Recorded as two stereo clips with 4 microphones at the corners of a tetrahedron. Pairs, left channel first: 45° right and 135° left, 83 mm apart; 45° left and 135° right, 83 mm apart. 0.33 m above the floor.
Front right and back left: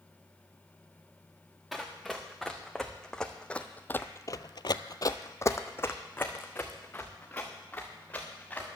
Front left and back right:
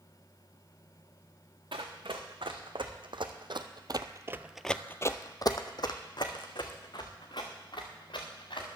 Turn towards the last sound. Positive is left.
turn(degrees=30)